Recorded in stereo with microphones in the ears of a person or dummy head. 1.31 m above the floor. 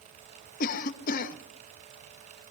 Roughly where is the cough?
Left.